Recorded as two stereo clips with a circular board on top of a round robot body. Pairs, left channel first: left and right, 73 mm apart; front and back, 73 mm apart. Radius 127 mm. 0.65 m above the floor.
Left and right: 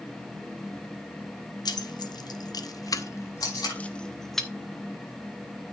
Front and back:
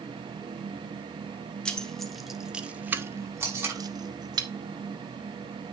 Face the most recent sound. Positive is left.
turn(degrees=125)